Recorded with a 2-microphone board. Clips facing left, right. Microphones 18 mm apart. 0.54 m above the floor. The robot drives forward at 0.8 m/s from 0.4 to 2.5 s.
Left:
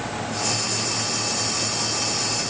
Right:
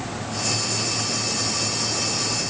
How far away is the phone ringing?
No phone ringing in this recording.